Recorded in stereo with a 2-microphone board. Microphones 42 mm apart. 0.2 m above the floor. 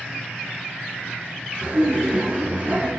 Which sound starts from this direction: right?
Laughter, at 1.6 s.